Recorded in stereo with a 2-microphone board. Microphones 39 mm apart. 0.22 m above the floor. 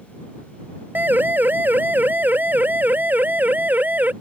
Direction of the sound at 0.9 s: 55° right (ahead or behind).